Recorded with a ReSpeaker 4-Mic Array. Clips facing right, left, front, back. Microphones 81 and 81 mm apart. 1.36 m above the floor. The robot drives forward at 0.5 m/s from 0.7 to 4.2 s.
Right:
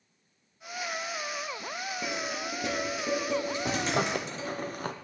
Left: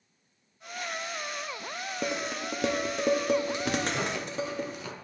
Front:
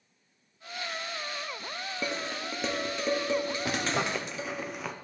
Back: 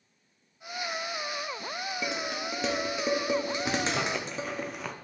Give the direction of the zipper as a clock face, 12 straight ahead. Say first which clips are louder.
Right 1 dB, back 1 dB; 2 o'clock.